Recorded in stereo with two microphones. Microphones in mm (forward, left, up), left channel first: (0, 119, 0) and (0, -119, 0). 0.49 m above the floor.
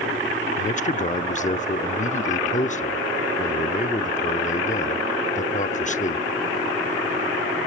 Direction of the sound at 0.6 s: 30° left (ahead or behind).